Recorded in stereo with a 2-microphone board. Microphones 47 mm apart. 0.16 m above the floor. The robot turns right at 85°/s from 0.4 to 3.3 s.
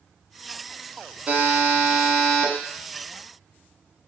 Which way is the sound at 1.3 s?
90° right.